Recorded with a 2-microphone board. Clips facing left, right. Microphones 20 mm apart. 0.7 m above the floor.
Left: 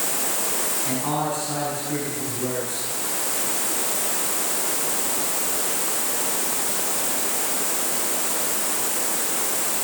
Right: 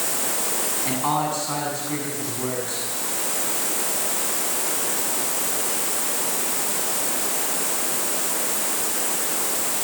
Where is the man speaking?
30° right (ahead or behind), 7.5 m.